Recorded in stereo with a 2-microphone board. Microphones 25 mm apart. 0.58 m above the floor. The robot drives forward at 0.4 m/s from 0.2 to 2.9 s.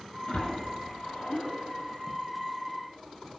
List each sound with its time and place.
0.3 s a splash: 60° left (ahead or behind), 6 m; by 2.2 s 55° left (ahead or behind), 6.5 m